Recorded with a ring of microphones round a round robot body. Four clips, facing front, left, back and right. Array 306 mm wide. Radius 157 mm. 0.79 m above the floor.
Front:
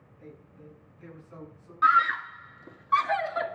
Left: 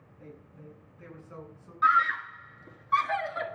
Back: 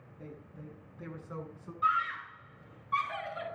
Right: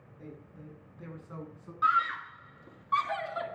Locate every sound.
0.2 s a man speaking: 130° right, 9 m; by 1.7 s 140° right, 9.5 m
1.8 s a scream: 5° left, 2 m